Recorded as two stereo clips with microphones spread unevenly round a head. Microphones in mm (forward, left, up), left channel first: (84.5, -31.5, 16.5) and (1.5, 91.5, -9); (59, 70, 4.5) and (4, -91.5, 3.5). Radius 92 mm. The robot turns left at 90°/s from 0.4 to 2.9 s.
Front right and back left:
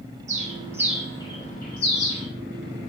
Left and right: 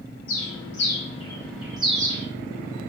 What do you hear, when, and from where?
0.3 s a bird: 85° left, 0.8 m; by 2.3 s 85° right, 0.8 m